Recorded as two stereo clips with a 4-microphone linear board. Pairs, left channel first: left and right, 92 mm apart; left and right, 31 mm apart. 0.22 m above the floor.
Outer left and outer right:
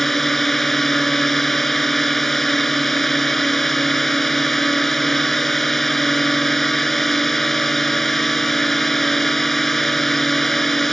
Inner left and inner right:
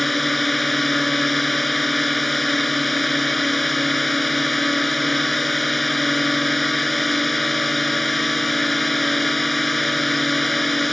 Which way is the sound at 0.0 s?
5° left (ahead or behind).